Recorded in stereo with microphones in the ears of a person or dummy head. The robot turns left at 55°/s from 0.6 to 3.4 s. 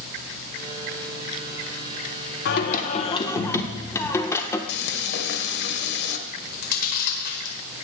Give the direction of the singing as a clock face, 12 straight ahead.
10 o'clock.